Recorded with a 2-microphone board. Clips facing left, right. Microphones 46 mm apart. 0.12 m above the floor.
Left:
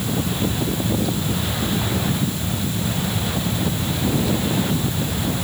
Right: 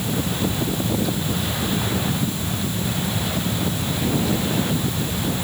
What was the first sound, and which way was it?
Only background noise.